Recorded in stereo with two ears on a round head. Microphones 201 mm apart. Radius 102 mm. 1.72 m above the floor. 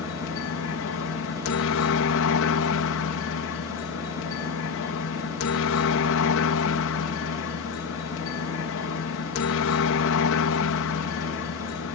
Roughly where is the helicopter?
Left.